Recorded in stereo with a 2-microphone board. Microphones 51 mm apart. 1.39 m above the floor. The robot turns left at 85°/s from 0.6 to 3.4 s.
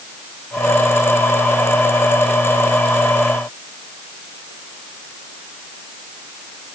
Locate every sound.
Only background noise.